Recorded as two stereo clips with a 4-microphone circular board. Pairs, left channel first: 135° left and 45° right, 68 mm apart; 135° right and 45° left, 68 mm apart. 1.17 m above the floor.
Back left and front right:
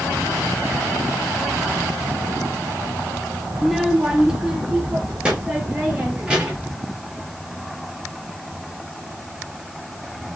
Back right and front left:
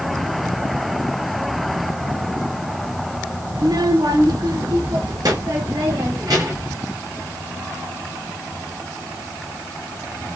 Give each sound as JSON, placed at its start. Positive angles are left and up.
{"t": 3.5, "sound": "a child speaking", "azimuth_deg": 35, "distance_m": 0.5}